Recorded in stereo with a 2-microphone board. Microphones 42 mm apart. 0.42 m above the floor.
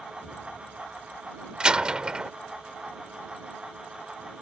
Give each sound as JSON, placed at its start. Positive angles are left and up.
{"t": 0.2, "sound": "an explosion", "side_deg": -60}
{"t": 1.6, "sound": "a door slam", "side_deg": -20}